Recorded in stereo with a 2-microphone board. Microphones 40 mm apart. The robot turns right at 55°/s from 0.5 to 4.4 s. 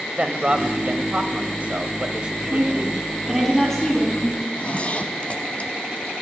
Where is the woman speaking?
55° right, 7 m; by 4.3 s 40° left, 7 m.